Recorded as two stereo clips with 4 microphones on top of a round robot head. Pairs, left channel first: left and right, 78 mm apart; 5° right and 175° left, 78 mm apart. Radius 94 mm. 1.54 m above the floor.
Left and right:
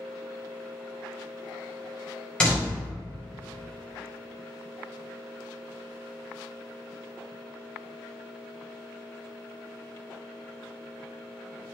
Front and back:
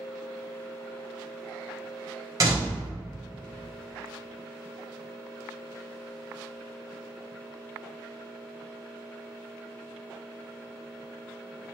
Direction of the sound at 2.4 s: 160° left.